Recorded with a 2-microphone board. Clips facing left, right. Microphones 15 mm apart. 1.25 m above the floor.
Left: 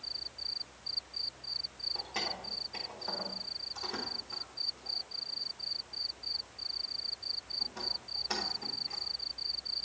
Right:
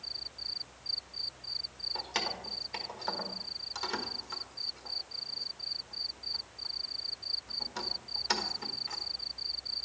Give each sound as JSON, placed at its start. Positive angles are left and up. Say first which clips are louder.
{"t": 1.9, "sound": "keys jangling", "louder": "right 2 dB", "side_deg": -75, "distance_m": 1.1}